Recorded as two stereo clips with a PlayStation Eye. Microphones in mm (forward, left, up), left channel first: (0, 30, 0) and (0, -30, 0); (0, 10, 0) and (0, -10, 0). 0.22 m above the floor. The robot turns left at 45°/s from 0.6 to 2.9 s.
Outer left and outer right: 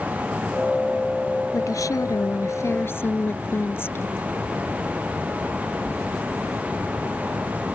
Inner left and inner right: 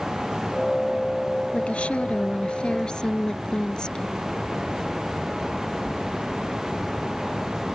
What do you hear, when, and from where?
1.5 s a woman speaking: 105° left; by 4.3 s 45° left